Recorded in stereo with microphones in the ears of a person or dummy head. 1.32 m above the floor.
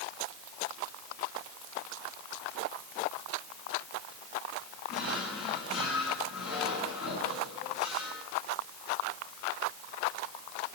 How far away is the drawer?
About 6.5 m.